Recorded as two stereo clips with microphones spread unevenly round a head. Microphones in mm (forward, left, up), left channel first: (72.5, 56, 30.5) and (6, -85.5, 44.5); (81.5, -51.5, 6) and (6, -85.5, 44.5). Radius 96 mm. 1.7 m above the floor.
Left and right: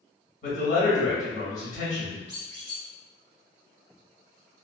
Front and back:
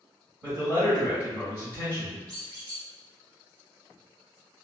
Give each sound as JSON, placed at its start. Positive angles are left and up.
{"t": 0.4, "sound": "a man speaking", "azimuth_deg": 115, "distance_m": 1.4}
{"t": 2.3, "sound": "a squeak", "azimuth_deg": -160, "distance_m": 1.1}